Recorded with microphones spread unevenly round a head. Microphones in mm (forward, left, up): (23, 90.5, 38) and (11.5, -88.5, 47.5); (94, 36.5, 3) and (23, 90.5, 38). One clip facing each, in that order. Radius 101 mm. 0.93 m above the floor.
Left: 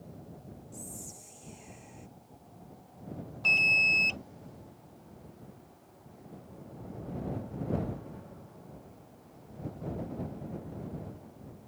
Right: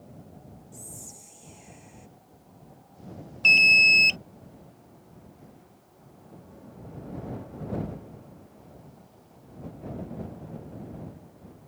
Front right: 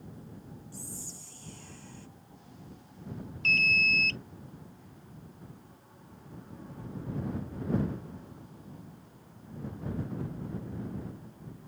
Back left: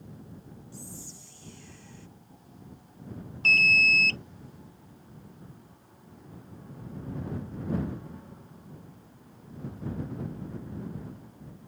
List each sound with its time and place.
0.7 s whispering: 5° right
3.4 s an alarm: 150° right